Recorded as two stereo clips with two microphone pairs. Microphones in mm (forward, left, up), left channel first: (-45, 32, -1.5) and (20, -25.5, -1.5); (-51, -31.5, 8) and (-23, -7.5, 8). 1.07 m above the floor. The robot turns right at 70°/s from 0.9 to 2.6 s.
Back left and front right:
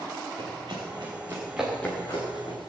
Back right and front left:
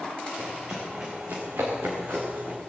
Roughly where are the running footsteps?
Ahead.